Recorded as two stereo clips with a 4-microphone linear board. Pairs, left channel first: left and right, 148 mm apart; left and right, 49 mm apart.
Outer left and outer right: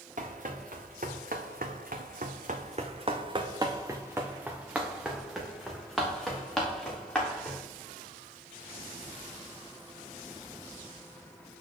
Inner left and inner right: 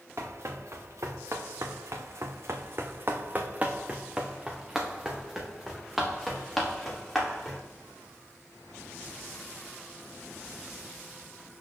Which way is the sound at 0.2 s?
60° right (ahead or behind).